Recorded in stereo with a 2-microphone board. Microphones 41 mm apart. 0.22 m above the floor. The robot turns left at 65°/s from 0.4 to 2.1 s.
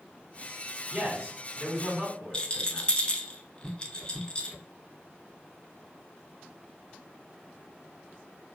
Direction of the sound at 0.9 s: 25° right.